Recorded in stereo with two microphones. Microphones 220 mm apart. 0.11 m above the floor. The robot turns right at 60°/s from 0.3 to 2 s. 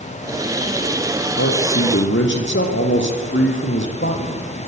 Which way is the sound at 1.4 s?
80° left.